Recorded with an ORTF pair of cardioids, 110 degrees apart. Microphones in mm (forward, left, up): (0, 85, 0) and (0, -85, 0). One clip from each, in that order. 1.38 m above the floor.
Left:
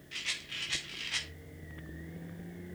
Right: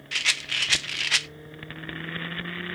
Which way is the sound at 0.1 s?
70° right.